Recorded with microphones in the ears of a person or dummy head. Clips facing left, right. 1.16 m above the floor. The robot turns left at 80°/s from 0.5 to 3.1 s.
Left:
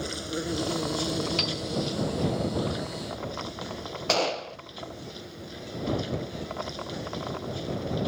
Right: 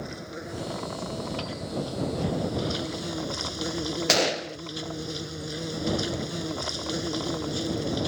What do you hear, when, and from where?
0.0 s an insect: 135° left; by 8.1 s 70° right
1.4 s a piano: 30° left (ahead or behind); by 1.6 s 10° left (ahead or behind)
4.1 s a gunshot: 20° right (ahead or behind)